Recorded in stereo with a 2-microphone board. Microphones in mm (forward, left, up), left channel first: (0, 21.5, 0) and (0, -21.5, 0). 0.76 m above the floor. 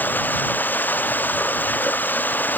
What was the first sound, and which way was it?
Running water, 45° left (ahead or behind).